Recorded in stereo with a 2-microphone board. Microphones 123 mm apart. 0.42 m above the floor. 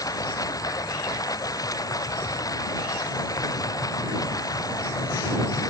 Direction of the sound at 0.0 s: 25° left (ahead or behind).